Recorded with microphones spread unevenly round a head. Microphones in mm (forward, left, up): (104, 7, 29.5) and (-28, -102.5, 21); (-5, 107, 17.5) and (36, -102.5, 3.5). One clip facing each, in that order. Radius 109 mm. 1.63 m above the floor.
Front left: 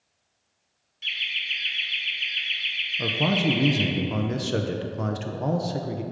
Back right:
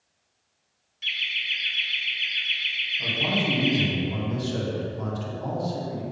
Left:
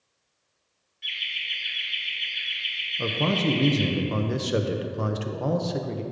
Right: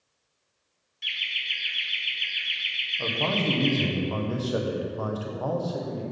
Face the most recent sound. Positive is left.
turn(degrees=50)